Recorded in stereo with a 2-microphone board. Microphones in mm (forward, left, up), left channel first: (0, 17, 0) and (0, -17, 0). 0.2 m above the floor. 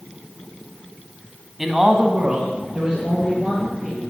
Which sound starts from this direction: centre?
A man speaking, at 1.6 s.